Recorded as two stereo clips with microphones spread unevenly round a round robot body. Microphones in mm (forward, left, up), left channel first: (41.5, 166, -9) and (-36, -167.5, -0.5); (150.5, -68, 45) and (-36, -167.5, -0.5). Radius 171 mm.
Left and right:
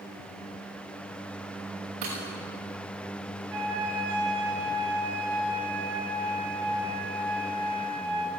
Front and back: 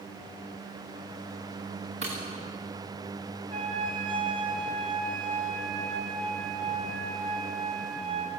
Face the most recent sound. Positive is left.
turn(degrees=-100)